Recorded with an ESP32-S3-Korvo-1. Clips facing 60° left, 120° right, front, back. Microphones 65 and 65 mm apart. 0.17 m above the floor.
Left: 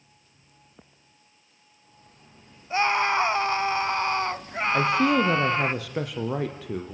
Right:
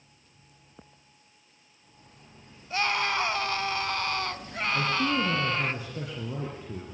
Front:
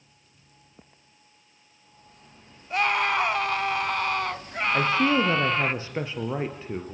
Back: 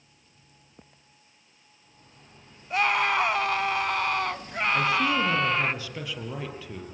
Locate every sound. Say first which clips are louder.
2.7 s a scream: left 5 dB, even; 90° left, 1.2 m
4.7 s a man speaking: left 6 dB, front 3 dB; 55° left, 3.5 m